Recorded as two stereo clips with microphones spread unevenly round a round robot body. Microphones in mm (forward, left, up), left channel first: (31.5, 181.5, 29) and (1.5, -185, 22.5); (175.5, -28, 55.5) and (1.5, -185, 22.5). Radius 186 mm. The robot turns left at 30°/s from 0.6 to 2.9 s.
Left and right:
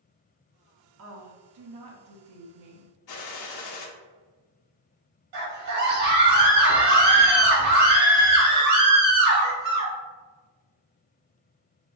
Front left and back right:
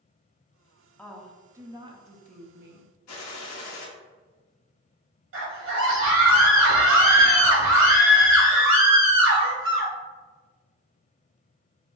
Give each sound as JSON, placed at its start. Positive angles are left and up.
{"t": 1.0, "sound": "a woman speaking", "azimuth_deg": -45, "distance_m": 1.0}
{"t": 3.1, "sound": "a gunshot", "azimuth_deg": 45, "distance_m": 0.9}
{"t": 5.3, "sound": "a scream", "azimuth_deg": -135, "distance_m": 1.9}